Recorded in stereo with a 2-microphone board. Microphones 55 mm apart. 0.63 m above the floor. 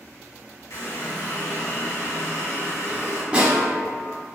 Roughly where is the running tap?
Left.